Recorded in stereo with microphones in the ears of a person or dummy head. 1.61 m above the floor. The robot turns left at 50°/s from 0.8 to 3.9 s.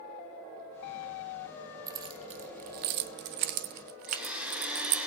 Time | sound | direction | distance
1.9 | keys jangling | 20° right (ahead or behind) | 1.4 m
4.1 | a blender | 5° right (ahead or behind) | 2.5 m